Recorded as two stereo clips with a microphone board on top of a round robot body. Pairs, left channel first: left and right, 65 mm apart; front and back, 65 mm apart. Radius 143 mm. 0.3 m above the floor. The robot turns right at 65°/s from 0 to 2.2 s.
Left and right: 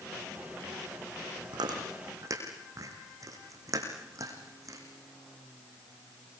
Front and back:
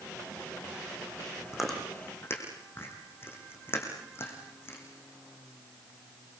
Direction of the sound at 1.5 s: 95° right.